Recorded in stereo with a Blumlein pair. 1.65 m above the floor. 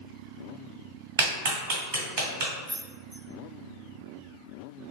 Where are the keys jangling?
50° right, 1.7 m.